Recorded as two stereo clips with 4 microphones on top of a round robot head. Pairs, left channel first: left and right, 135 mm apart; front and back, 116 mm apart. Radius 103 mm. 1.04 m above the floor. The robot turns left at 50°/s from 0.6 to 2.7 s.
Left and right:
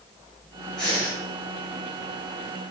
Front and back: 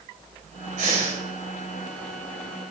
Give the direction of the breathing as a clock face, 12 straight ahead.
6 o'clock.